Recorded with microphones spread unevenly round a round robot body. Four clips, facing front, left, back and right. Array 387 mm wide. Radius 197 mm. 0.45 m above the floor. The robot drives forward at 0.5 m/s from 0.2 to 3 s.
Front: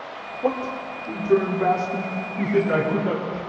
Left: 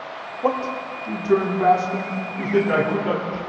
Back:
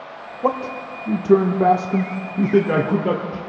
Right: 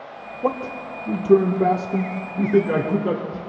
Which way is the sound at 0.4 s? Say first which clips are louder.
Left 2 dB, back 3 dB; 55° right.